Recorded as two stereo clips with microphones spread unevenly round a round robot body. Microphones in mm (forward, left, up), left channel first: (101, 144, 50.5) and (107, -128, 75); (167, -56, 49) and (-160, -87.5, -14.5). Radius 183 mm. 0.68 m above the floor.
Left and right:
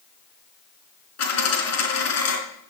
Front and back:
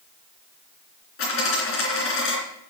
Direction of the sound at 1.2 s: 65° left.